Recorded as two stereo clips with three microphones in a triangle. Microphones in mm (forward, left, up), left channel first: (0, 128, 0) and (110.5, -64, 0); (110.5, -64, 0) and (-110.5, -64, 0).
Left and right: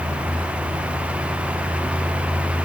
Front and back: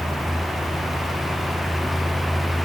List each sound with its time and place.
Only background noise.